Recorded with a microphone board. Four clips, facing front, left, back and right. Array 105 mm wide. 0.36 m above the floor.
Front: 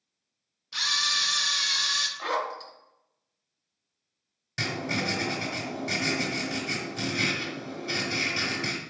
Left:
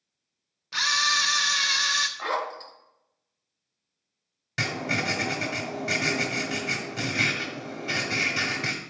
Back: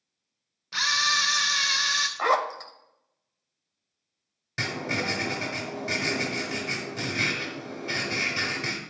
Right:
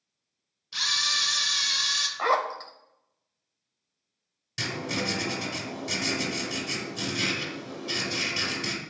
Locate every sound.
0.7 s a camera shutter: 130° left, 0.6 m
2.2 s a zipper: 150° right, 0.5 m
4.6 s writing: 110° left, 1.1 m